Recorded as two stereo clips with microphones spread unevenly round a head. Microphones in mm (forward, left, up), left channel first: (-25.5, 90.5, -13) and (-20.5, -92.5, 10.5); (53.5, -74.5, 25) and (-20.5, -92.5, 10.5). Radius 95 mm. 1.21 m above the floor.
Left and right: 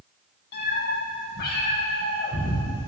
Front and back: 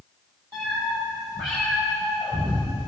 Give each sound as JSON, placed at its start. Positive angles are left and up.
{"t": 0.5, "sound": "a cat meowing", "azimuth_deg": 125, "distance_m": 3.5}